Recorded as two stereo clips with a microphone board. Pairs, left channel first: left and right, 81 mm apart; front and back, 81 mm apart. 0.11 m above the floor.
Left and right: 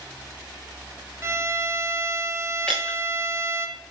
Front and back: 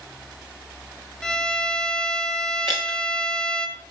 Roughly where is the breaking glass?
Behind.